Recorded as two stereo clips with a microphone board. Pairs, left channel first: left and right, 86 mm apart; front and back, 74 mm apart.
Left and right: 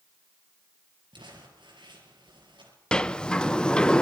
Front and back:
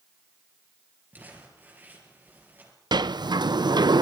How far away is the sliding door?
About 0.5 m.